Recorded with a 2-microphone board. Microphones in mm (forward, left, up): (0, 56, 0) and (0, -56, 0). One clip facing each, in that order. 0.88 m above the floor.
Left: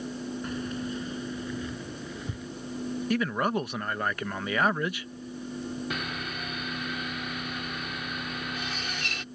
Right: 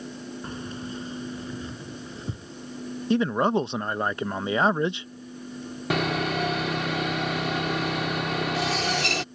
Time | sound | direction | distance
0.4 | keys jangling | 30° right (ahead or behind) | ?
3.1 | a man speaking | 25° right (ahead or behind) | ?
5.9 | sawing | 85° right | ?